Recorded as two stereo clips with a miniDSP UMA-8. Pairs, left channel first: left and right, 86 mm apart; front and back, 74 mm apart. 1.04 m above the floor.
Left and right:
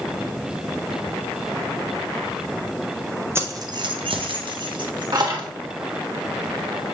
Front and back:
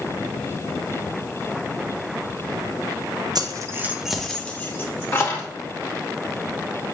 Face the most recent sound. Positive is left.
turn(degrees=-55)